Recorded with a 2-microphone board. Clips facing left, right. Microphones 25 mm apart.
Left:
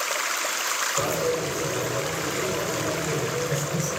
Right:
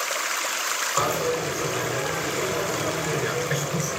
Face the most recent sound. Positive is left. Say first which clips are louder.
# right 3 dB
turn(degrees=-45)  # may be behind; listen again after turning